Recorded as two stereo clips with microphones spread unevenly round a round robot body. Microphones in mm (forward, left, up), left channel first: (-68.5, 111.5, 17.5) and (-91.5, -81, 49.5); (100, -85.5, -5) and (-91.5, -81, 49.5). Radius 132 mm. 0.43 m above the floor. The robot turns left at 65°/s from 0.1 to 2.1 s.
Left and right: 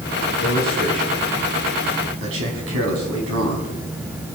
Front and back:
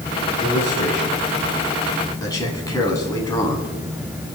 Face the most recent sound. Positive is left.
turn(degrees=-70)